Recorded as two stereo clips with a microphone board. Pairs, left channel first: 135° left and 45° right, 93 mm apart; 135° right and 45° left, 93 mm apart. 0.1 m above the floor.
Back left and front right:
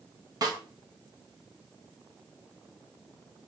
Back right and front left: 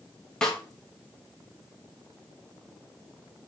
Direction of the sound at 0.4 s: 55° right.